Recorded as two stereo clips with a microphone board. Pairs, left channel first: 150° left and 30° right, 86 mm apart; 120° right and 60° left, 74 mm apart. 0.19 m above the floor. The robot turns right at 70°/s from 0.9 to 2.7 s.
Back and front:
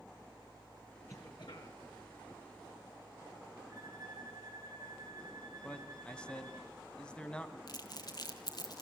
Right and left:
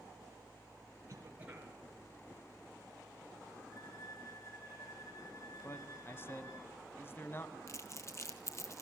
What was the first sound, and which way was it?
A cough, 100° left.